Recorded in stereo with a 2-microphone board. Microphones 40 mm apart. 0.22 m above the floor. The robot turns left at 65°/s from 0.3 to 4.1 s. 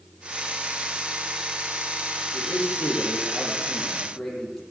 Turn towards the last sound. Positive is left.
turn(degrees=5)